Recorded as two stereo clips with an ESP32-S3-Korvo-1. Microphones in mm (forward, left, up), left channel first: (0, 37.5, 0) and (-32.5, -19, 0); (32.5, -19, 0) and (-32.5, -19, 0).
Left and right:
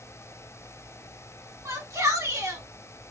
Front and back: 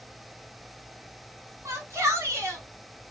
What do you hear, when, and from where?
1.6 s a shout: 145° right, 2 m